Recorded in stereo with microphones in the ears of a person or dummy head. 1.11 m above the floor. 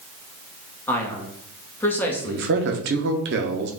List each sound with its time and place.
0.9 s a man speaking: 10° left (ahead or behind), 0.8 m
2.2 s a man speaking: 50° right (ahead or behind), 0.6 m